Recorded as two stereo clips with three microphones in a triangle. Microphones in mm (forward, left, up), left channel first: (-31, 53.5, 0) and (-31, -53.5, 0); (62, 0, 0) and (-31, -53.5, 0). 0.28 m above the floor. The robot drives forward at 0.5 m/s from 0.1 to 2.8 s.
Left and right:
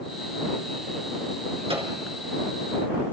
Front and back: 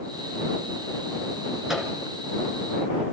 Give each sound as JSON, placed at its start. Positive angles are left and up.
{"t": 1.7, "sound": "a microwave", "azimuth_deg": -65, "distance_m": 4.0}